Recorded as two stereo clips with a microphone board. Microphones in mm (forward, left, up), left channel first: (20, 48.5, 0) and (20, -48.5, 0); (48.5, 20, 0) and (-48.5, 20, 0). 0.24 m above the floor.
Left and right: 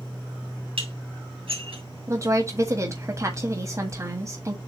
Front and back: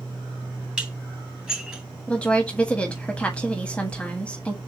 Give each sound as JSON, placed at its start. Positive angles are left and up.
{"t": 0.8, "sound": "dishes clattering", "azimuth_deg": -100, "distance_m": 2.5}
{"t": 2.1, "sound": "a woman speaking", "azimuth_deg": -70, "distance_m": 1.3}